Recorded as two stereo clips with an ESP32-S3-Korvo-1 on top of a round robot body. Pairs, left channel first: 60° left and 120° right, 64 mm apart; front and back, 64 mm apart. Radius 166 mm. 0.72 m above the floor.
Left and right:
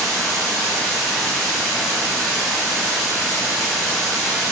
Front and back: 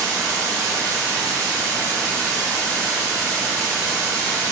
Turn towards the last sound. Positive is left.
turn(degrees=150)